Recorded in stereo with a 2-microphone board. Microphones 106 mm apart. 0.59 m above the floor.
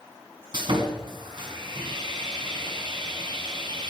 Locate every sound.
0.5 s sawing: 45° right (ahead or behind), 2 m